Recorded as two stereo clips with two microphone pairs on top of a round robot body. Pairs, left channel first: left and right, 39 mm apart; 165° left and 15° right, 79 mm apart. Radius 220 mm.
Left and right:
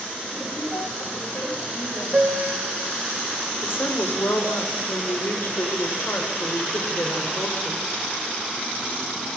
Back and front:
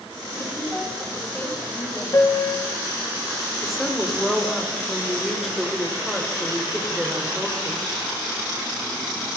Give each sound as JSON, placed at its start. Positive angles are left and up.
{"t": 0.3, "sound": "a woman speaking", "azimuth_deg": 80, "distance_m": 10.0}
{"t": 2.1, "sound": "a piano", "azimuth_deg": -145, "distance_m": 4.0}
{"t": 3.6, "sound": "a woman speaking", "azimuth_deg": 70, "distance_m": 5.5}